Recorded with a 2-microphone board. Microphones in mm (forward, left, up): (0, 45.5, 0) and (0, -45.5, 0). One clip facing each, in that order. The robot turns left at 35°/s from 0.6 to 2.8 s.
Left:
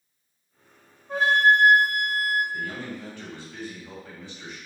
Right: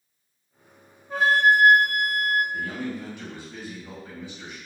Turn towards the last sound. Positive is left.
turn(degrees=-15)  # may be behind; listen again after turning